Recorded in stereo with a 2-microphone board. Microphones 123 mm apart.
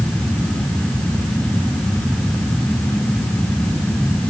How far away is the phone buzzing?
I don't hear a phone buzzing.